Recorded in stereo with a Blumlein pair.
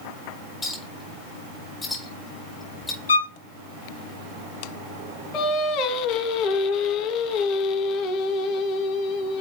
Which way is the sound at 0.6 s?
15° left.